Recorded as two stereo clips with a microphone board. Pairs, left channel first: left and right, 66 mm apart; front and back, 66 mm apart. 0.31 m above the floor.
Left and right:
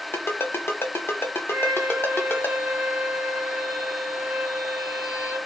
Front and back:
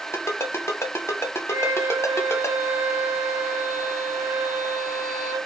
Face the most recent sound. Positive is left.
turn(degrees=-155)